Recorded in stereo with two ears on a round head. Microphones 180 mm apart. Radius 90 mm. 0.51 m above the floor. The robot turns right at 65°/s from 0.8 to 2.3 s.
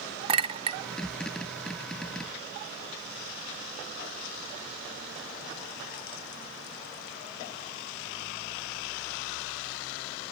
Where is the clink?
25° right (ahead or behind), 0.6 m.